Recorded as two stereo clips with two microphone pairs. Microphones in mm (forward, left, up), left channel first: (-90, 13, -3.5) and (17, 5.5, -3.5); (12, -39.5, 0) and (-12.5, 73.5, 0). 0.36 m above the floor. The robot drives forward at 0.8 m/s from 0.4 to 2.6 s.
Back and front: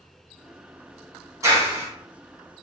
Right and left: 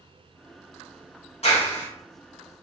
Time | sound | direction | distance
1.4 | a clap | 65° right | 2 m